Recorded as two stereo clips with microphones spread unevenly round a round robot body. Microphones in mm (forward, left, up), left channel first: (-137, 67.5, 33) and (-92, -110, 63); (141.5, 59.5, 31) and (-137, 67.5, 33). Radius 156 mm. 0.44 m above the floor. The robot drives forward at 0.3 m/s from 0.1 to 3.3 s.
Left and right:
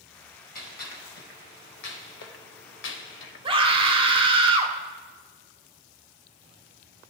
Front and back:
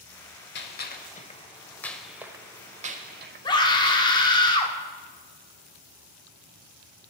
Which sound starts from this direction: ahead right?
A scream, at 3.5 s.